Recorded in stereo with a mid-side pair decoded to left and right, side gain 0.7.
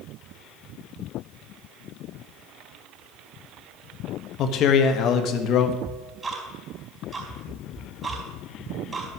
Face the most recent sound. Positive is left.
turn(degrees=-15)